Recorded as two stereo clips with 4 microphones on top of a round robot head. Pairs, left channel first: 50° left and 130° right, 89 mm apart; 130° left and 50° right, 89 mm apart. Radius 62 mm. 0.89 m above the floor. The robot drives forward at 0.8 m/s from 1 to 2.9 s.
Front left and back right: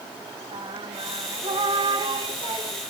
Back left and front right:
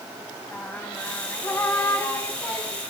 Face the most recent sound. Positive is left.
turn(degrees=-170)